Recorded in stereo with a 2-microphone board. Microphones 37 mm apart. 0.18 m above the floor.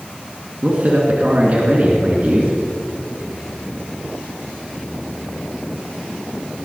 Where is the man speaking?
50° right (ahead or behind), 2.5 m.